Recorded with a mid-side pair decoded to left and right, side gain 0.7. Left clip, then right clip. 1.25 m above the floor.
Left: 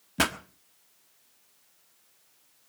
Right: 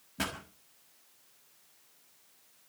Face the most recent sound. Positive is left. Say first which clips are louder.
# left 9 dB
turn(degrees=50)